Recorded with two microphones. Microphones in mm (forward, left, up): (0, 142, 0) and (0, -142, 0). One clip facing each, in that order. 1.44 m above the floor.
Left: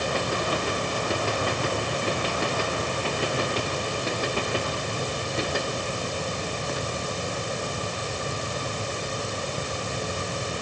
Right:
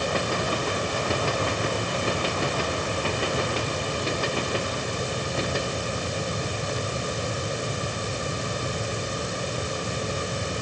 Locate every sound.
Only background noise.